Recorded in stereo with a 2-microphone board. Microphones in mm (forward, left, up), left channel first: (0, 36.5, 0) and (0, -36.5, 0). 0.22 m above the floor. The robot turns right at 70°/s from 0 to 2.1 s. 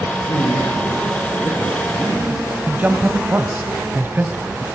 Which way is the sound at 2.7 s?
25° right (ahead or behind).